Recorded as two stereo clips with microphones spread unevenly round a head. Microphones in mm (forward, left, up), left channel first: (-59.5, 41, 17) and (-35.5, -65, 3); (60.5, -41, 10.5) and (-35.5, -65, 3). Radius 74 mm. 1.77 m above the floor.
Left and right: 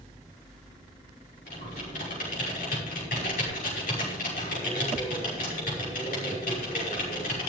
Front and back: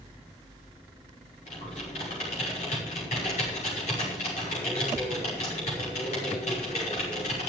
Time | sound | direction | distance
1.5 | typing on a keyboard | 65° left | 5.5 m